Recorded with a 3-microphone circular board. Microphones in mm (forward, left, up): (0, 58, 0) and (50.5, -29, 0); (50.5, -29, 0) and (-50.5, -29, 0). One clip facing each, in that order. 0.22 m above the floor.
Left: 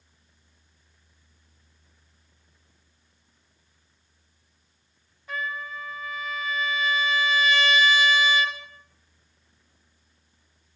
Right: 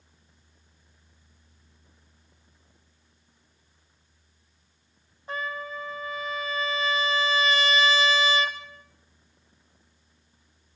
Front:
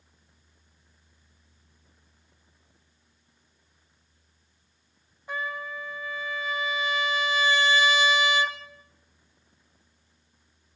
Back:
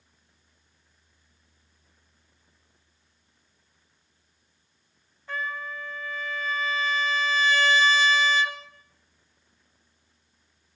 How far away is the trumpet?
About 1.5 m.